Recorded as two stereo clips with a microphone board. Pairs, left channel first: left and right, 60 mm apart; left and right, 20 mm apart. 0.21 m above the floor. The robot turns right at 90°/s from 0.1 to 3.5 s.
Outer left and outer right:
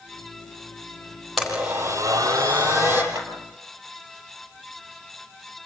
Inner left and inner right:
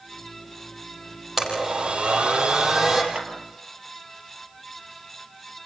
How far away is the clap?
About 5 m.